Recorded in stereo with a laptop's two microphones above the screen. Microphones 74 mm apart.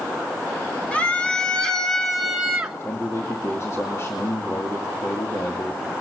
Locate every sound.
0.9 s a scream: 20° left (ahead or behind), 2.5 m; by 2.8 s 15° right (ahead or behind), 1.4 m
2.8 s a man speaking: 40° left (ahead or behind), 2.5 m